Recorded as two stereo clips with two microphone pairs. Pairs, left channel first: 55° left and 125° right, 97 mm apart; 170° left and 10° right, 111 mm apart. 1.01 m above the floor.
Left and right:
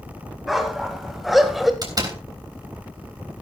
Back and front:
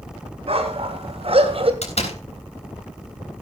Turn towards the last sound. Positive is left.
turn(degrees=-170)